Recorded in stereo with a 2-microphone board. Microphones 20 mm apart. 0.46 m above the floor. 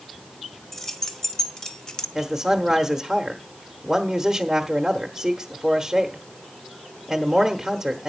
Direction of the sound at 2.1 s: 15° right (ahead or behind).